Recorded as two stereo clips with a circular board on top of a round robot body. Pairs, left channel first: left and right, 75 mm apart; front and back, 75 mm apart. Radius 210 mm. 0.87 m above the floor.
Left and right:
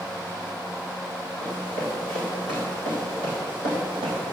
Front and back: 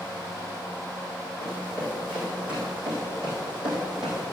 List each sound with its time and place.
1.4 s running footsteps: 105° right, 4 m; by 4.3 s 95° right, 2.5 m